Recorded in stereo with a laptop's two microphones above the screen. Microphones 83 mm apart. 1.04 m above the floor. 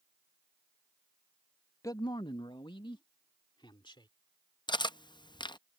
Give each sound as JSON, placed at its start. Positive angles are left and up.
{"t": 1.8, "sound": "a man speaking", "side_deg": 40}
{"t": 4.7, "sound": "cutlery clinking", "side_deg": 65}